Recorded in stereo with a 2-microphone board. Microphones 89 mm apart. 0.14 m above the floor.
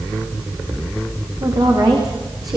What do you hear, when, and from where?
1.4 s a woman speaking: 50° right (ahead or behind), 9.5 m; by 2.6 s 40° right (ahead or behind), 9.5 m